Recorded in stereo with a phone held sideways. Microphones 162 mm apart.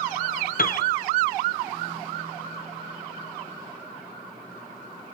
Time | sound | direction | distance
0.6 | a piano | 60° left (ahead or behind) | 0.7 m